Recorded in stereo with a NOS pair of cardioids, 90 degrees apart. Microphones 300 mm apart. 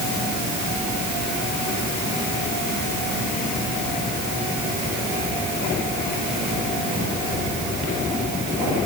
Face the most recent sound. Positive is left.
No sound to turn to.